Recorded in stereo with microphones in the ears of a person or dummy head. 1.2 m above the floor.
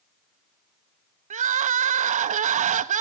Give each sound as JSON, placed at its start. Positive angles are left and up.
{"t": 1.3, "sound": "crying", "side_deg": -35, "distance_m": 0.7}